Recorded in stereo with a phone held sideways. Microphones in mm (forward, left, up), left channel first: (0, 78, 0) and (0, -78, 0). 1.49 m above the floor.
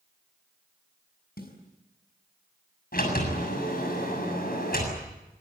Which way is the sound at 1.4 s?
75° left (ahead or behind).